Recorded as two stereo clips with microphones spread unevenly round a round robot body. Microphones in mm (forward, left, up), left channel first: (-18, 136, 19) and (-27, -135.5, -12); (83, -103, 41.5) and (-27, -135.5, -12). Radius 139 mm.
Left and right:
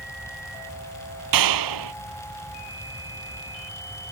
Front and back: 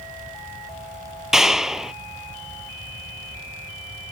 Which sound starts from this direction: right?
A clap, at 1.3 s.